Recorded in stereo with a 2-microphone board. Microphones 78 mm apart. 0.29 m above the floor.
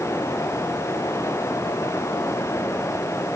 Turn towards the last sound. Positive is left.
No sound to turn to.